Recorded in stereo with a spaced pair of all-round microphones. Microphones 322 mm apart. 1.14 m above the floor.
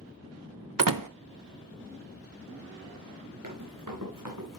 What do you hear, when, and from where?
0.8 s a door slam: 85° right, 0.6 m
3.4 s running footsteps: 75° right (ahead or behind), 5 m; by 4.6 s 70° right (ahead or behind), 4 m